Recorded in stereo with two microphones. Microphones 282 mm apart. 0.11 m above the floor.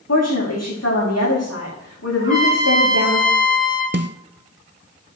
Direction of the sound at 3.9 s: 45° right (ahead or behind).